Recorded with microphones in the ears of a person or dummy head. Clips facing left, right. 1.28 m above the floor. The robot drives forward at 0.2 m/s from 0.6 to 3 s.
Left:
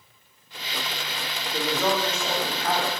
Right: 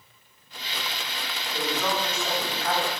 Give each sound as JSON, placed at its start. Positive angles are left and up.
{"t": 1.5, "sound": "a woman speaking", "side_deg": 70, "distance_m": 1.5}